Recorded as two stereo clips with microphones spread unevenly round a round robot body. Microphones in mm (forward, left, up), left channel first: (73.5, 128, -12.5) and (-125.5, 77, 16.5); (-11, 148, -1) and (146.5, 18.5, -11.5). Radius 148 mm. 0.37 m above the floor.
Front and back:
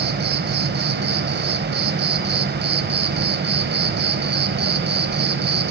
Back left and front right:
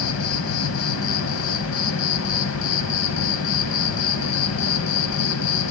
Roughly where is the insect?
Behind left.